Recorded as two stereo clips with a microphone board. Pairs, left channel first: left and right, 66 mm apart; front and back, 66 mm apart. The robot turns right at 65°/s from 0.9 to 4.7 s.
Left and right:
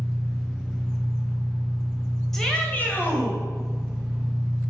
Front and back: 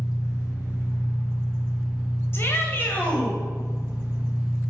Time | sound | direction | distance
0.0 | an engine running | 25° left | 2.5 m
2.3 | a shout | 10° left | 1.4 m